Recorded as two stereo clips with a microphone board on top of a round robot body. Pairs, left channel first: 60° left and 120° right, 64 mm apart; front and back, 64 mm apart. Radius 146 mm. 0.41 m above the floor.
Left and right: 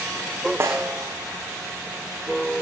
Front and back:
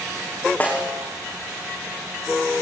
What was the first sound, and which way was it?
A snare drum, 65° right.